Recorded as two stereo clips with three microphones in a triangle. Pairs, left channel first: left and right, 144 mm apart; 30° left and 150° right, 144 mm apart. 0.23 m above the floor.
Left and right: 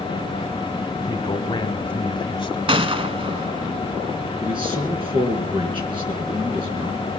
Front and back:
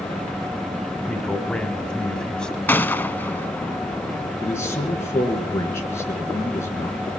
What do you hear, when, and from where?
1.1 s a man speaking: 110° left, 1.5 m
2.7 s a gunshot: 45° right, 0.5 m
4.4 s a man speaking: 40° right, 3.5 m